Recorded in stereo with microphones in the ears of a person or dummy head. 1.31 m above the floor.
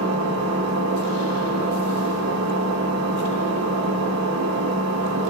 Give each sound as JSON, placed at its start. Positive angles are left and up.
{"t": 0.0, "sound": "an engine running", "side_deg": -80, "distance_m": 0.9}